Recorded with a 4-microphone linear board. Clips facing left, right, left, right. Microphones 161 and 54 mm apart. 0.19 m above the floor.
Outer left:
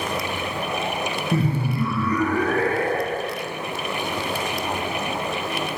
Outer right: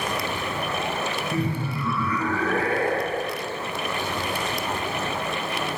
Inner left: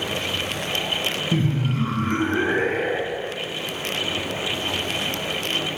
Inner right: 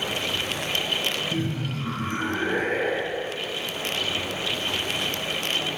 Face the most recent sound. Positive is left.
turn(degrees=50)  # may be behind; listen again after turning